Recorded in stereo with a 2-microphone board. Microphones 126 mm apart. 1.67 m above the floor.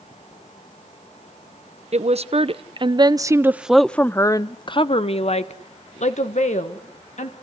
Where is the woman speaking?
60° right (ahead or behind), 1.1 m; by 7.3 s 75° left (ahead or behind), 1.9 m.